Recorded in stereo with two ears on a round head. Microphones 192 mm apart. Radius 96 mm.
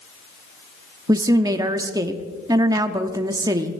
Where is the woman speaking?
15° right (ahead or behind), 0.9 m.